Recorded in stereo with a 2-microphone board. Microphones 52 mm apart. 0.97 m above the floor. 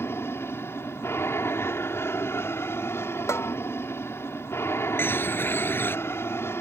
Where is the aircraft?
55° left (ahead or behind).